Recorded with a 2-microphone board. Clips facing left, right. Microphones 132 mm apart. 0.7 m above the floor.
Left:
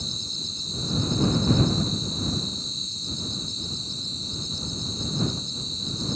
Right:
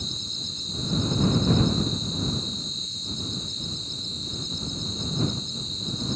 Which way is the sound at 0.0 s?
35° left (ahead or behind).